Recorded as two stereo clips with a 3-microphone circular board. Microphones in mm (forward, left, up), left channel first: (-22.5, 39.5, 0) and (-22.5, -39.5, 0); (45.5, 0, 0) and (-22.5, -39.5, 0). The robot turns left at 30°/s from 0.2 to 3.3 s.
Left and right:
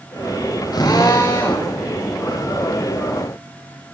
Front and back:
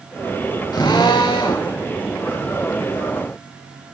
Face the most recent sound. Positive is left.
turn(degrees=-20)